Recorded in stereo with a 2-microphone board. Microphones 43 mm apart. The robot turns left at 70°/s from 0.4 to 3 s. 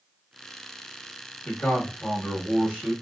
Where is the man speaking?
25° left (ahead or behind), 1.0 m; by 2.9 s 10° right (ahead or behind), 1.0 m.